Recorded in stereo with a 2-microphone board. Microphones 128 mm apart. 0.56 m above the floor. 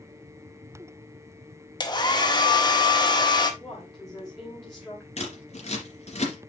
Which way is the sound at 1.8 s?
35° left (ahead or behind).